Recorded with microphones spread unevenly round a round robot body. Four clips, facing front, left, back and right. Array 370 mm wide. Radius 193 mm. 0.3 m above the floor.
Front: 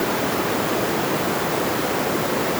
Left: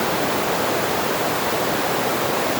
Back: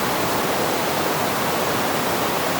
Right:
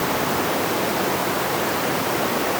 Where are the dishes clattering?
I don't hear dishes clattering.